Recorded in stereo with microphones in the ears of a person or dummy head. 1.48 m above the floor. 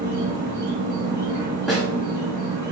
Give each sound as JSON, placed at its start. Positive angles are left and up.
{"t": 0.0, "sound": "an insect", "side_deg": -50, "distance_m": 1.4}
{"t": 1.7, "sound": "a snare drum", "side_deg": 0, "distance_m": 0.9}